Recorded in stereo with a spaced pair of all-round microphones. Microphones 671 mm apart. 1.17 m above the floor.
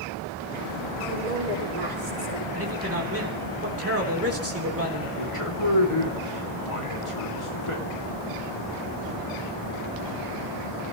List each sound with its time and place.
1.0 s a woman speaking: 85° right, 5 m; by 2.4 s 80° right, 4.5 m
2.5 s a man speaking: 20° right (ahead or behind), 3.5 m
5.2 s a man speaking: 45° left (ahead or behind), 3 m